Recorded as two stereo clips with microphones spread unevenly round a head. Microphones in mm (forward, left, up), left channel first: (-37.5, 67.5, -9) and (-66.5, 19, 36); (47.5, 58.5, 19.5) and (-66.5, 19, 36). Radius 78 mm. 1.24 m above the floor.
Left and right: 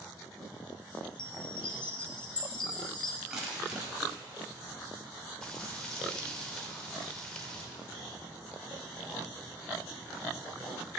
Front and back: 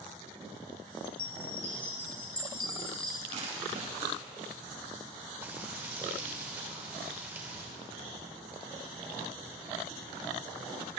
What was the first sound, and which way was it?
A chime, 70° left.